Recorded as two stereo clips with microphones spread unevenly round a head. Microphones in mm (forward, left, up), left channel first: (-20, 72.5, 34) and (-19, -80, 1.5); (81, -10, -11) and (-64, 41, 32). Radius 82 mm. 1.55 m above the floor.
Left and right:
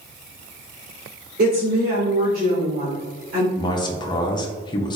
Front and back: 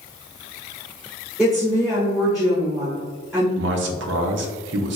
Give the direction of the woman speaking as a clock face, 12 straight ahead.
4 o'clock.